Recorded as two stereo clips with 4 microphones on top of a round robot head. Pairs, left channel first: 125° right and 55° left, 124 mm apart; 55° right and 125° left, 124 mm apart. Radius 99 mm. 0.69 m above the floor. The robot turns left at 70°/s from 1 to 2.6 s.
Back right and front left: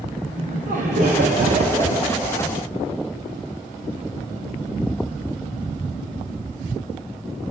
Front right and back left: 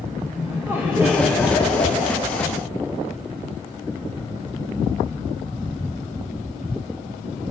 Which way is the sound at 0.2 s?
50° left.